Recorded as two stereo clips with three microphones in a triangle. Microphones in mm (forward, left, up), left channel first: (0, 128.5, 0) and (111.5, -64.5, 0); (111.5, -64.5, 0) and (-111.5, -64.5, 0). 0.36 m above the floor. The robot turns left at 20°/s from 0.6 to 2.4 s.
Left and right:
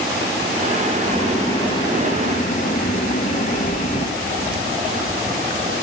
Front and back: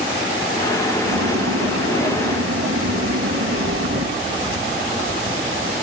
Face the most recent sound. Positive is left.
turn(degrees=170)